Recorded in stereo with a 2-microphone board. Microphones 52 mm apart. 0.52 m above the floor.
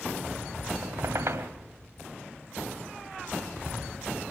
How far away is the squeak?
About 1.6 m.